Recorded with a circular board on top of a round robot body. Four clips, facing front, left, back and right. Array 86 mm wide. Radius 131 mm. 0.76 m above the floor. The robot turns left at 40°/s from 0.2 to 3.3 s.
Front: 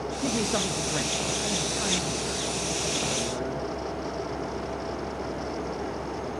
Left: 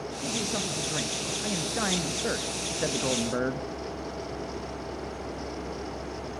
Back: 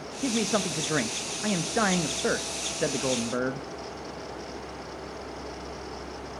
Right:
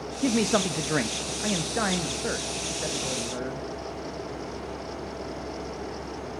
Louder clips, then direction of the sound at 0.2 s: Right 10 dB, back 2 dB; 100° right.